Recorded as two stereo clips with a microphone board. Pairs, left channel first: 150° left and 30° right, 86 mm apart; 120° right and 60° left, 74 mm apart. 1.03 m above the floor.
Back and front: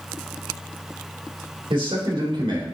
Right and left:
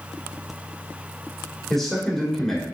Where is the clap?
No clap in this recording.